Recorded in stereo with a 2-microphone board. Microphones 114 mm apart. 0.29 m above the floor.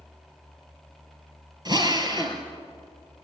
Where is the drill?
35° right (ahead or behind), 2.5 m.